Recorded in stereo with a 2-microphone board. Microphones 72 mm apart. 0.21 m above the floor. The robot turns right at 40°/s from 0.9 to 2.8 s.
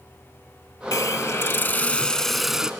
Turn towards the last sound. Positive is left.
turn(degrees=-165)